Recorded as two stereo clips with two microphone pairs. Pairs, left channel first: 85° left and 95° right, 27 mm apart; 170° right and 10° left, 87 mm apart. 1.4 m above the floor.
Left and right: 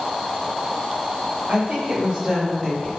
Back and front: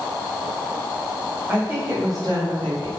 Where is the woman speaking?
65° right, 0.8 m; by 2.9 s 5° right, 0.8 m.